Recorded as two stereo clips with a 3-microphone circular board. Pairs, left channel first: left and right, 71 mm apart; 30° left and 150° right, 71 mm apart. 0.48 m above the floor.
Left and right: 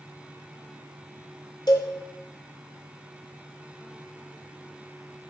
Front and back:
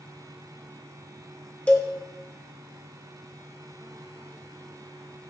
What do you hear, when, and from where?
1.7 s a cowbell: 100° left, 0.5 m